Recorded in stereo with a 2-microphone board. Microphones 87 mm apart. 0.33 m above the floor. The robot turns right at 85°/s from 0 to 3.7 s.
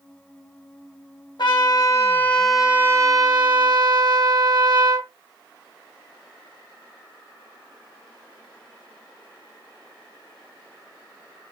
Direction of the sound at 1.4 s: 85° left.